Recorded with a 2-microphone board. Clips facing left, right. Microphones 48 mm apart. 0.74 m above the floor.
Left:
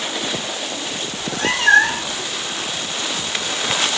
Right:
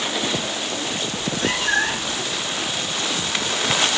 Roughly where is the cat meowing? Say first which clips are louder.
Left 4 dB; left.